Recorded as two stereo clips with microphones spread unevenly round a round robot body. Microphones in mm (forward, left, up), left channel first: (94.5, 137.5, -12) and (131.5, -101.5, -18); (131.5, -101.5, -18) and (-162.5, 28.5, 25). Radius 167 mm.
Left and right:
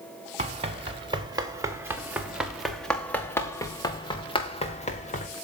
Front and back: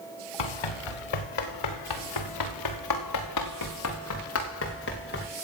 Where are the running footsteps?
15° right, 4.5 m; by 5.3 s 40° left, 4.5 m.